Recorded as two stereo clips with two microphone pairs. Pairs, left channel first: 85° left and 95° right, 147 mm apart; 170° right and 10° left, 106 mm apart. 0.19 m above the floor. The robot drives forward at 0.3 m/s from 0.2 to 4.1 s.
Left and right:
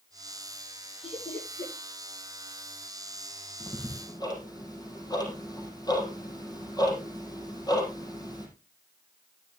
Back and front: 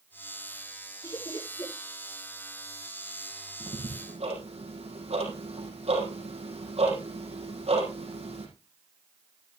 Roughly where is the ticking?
Ahead.